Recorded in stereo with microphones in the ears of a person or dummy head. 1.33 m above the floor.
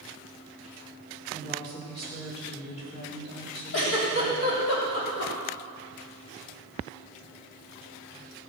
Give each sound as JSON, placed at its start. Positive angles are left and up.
{"t": 1.3, "sound": "a woman speaking", "side_deg": 35, "distance_m": 5.0}
{"t": 3.7, "sound": "a giggle", "side_deg": 70, "distance_m": 3.0}